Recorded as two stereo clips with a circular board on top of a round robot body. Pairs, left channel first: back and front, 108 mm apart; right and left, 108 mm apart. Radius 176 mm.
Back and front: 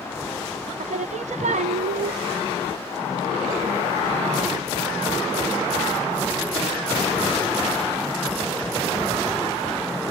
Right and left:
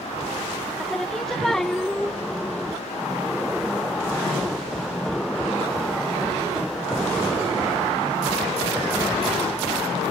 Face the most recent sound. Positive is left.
turn(degrees=0)